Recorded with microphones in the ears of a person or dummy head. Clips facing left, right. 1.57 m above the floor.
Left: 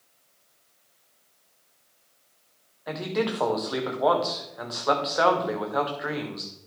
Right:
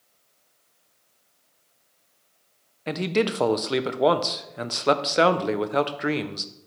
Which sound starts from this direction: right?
A man speaking, at 2.9 s.